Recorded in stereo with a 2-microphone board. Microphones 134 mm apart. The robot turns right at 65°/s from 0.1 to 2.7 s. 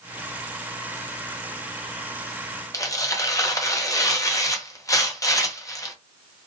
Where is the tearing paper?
25° left (ahead or behind), 0.6 m.